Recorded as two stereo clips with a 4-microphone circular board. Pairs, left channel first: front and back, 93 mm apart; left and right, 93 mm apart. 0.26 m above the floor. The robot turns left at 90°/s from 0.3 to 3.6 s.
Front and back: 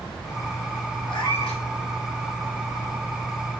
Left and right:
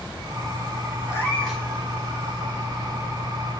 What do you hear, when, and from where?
1.1 s a cat meowing: 40° left, 1.3 m; by 1.6 s 10° right, 1.3 m